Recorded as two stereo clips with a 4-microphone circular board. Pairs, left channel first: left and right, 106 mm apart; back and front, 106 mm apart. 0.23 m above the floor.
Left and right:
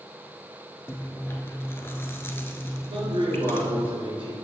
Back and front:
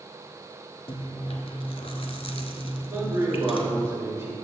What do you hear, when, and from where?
0.9 s chewing: 155° left, 0.7 m
2.9 s a man speaking: 70° right, 3.5 m